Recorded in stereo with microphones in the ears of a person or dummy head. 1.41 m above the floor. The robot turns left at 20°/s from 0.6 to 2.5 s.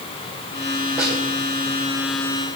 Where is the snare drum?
5° right (ahead or behind), 4 m; by 1.2 s centre (ahead or behind), 4 m.